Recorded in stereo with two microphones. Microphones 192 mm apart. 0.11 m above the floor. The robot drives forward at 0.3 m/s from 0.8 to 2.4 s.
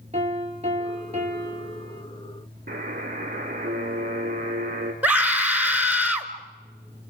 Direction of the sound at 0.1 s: 35° right (ahead or behind).